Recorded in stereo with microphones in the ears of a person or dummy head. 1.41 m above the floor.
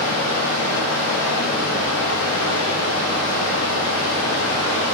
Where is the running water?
75° left (ahead or behind), 1.3 m.